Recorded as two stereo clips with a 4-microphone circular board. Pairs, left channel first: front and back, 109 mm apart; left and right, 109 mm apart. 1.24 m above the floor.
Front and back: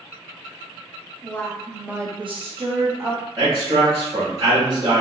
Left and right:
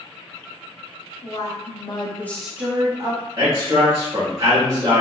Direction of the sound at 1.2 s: 75° left.